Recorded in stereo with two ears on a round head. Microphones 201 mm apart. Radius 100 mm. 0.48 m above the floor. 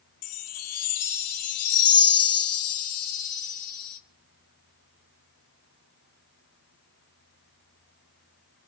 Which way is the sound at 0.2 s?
75° left (ahead or behind).